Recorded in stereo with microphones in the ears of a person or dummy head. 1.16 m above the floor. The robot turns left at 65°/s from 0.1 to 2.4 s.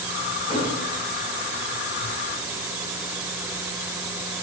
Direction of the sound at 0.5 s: 25° left (ahead or behind).